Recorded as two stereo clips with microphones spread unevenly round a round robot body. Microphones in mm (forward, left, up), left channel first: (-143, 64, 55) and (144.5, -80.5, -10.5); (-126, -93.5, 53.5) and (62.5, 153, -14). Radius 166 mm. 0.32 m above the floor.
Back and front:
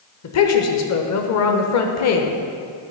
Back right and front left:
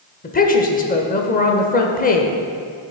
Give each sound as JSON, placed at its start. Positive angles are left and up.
{"t": 0.2, "sound": "a woman speaking", "azimuth_deg": 170, "distance_m": 1.0}